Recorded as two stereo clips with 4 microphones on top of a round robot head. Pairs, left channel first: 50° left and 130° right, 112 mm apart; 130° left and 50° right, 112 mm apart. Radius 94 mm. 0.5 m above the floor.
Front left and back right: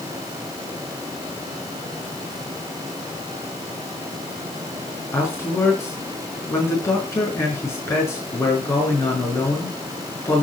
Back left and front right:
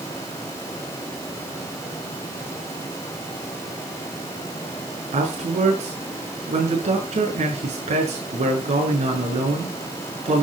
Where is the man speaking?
20° right, 6 m.